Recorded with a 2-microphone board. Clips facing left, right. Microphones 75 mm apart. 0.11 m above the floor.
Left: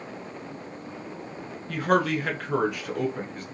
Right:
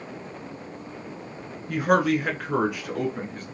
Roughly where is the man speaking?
Centre.